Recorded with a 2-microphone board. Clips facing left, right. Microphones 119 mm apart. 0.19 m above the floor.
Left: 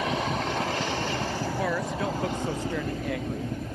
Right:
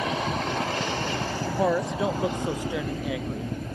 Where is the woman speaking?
25° right (ahead or behind); by 3.5 s centre (ahead or behind).